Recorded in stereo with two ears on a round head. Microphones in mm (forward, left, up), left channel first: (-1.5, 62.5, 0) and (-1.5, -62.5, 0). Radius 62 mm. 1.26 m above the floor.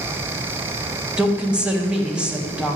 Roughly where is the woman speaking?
Centre.